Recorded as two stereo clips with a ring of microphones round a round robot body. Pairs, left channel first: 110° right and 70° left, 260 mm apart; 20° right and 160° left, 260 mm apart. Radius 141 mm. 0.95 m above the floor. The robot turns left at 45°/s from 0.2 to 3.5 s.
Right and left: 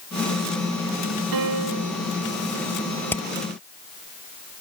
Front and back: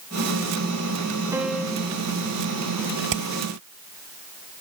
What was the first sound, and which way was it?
A piano, 80° left.